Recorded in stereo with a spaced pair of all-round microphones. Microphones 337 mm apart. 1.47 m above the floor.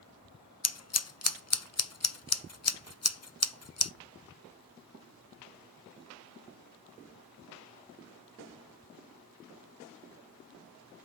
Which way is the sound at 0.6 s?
45° left (ahead or behind).